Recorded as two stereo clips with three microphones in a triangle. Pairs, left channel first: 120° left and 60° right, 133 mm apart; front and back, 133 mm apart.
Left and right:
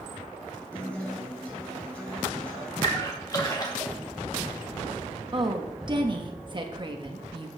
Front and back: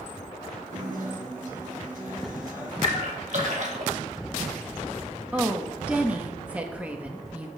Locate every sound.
0.7 s a guitar: 160° right, 3.5 m
2.8 s a splash: 175° left, 1.5 m
5.3 s a woman speaking: 100° right, 1.1 m